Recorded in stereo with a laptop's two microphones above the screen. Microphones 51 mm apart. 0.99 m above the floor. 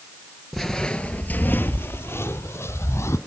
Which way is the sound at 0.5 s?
Centre (ahead or behind).